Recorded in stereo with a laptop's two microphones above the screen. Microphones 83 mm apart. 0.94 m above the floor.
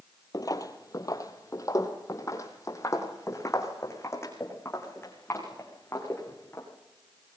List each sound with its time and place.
0.3 s footsteps: 45° left (ahead or behind), 1.4 m; by 6.7 s 30° left (ahead or behind), 5 m